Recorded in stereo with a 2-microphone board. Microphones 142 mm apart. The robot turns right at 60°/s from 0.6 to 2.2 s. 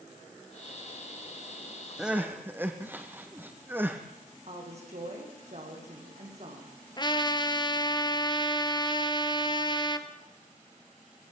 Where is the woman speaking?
50° right (ahead or behind), 7 m.